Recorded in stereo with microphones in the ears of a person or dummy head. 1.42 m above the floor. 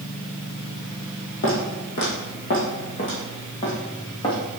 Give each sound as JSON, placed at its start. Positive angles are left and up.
{"t": 1.4, "sound": "footsteps", "side_deg": 45, "distance_m": 2.0}